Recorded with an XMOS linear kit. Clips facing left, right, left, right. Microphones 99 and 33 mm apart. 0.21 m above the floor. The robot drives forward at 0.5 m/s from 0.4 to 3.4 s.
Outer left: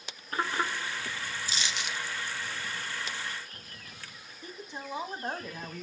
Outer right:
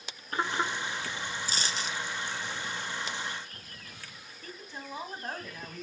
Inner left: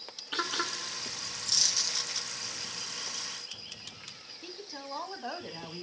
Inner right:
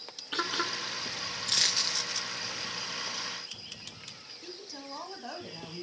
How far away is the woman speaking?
About 1.2 m.